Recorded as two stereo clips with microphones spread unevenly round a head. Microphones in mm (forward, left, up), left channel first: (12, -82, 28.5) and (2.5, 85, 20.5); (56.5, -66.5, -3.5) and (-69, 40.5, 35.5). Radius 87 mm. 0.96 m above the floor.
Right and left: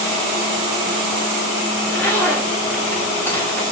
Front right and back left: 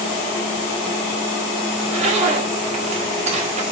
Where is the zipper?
165° right, 2 m.